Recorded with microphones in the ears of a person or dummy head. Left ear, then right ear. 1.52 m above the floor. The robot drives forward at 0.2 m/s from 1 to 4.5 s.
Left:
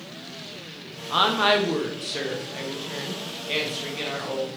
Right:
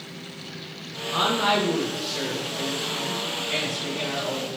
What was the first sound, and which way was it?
A woman speaking, 35° left (ahead or behind).